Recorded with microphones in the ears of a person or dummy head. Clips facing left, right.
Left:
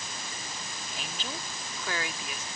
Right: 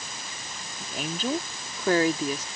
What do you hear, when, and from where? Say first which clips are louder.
0.8 s a woman speaking: right 12 dB; 40° right (ahead or behind); by 2.5 s 25° right (ahead or behind)